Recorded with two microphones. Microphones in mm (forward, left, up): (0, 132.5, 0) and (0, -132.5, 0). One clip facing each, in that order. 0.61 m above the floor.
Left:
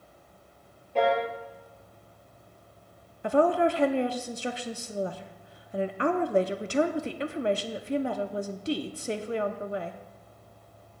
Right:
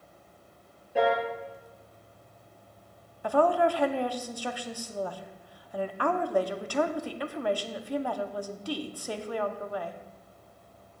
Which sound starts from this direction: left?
A woman speaking, at 3.2 s.